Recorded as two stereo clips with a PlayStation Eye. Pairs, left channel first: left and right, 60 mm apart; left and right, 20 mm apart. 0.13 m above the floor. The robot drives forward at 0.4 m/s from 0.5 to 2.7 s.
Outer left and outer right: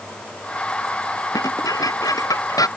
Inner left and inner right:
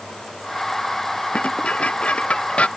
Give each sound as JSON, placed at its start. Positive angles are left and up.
{"t": 1.3, "sound": "dishes clattering", "side_deg": 85}